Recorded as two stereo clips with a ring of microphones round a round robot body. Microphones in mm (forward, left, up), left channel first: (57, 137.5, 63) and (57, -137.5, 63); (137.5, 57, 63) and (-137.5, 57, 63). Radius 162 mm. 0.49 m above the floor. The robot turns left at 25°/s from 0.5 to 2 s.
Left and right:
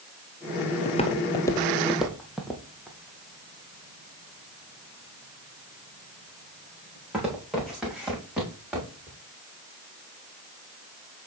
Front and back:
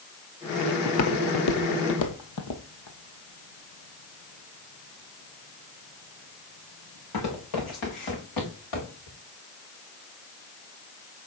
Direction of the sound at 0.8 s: 25° left.